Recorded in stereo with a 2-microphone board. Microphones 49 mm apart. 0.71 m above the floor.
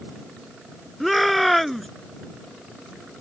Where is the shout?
5° left (ahead or behind).